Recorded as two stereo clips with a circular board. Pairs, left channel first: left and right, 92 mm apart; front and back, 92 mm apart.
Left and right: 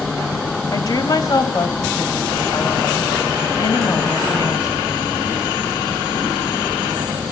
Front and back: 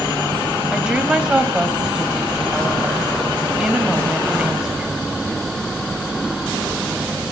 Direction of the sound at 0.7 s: 100° left.